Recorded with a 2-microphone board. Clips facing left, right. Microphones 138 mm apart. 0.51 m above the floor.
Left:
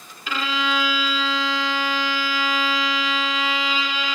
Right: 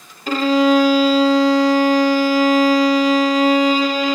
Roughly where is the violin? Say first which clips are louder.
Right 12 dB; right.